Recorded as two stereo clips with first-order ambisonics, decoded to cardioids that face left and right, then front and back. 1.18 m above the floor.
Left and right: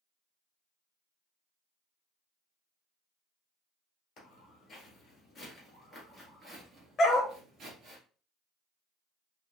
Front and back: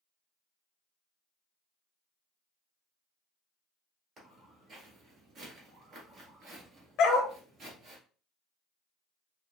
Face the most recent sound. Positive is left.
turn(degrees=30)